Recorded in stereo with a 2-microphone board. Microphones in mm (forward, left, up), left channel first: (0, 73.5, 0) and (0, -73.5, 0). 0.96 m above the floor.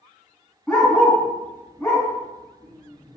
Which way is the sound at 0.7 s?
5° left (ahead or behind).